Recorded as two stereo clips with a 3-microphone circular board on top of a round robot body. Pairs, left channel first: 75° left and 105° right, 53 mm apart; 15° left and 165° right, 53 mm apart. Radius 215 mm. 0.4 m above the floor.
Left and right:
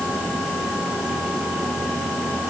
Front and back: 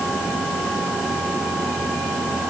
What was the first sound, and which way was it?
Only background noise.